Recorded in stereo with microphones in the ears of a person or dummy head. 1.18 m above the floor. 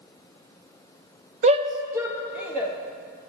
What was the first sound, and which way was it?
A shout, 40° right (ahead or behind).